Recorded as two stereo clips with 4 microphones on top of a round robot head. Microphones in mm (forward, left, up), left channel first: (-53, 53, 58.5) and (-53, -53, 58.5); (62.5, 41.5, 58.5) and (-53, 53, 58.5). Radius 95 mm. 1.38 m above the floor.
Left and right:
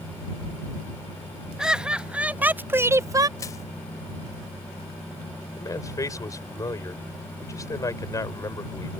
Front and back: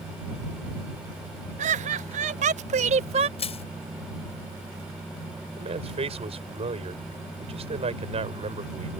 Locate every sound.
1.6 s laughter: 175° right; by 3.3 s 145° right
3.4 s crushing: 20° left
5.6 s a man speaking: 145° left